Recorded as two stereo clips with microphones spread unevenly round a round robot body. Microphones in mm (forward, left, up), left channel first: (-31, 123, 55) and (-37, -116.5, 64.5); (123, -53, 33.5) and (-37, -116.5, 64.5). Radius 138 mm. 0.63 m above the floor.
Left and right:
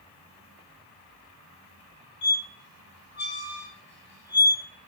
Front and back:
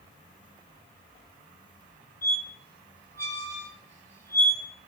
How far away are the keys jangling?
I don't hear keys jangling.